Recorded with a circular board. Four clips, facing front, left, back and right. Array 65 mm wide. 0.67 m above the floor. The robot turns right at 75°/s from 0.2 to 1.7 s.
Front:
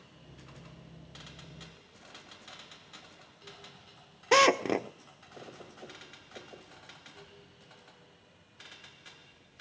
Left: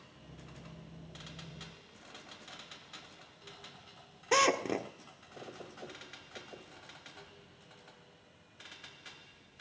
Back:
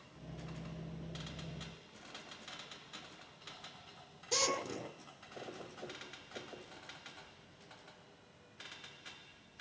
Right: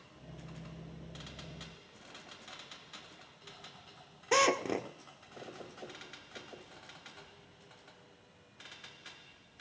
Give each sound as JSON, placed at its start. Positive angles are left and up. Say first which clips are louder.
{"t": 4.3, "sound": "a drill", "louder": "even, front 14 dB", "azimuth_deg": 0, "distance_m": 1.3}